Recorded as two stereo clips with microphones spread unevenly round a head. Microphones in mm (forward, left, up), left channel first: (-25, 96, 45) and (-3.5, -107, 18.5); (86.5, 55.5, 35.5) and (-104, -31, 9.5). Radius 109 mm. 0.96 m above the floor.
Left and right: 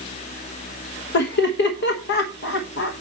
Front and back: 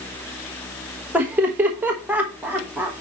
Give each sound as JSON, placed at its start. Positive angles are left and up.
{"t": 1.1, "sound": "laughter", "azimuth_deg": 125, "distance_m": 1.1}